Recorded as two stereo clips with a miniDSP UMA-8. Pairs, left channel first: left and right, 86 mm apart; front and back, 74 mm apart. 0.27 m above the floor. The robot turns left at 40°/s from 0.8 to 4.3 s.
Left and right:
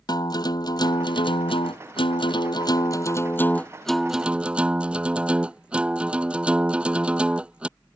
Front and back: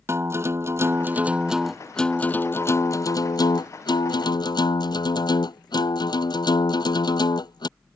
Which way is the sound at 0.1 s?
130° left.